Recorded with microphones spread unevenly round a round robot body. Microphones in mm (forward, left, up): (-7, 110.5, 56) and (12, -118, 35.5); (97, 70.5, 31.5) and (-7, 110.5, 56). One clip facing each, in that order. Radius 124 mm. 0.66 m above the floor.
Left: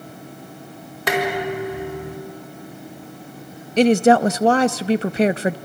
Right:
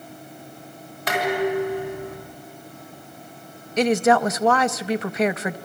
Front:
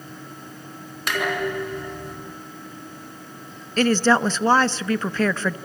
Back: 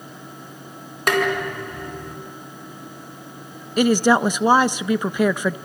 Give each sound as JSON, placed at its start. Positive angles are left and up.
{"t": 1.1, "sound": "dishes clattering", "azimuth_deg": 120, "distance_m": 4.5}
{"t": 3.8, "sound": "a woman speaking", "azimuth_deg": 70, "distance_m": 0.5}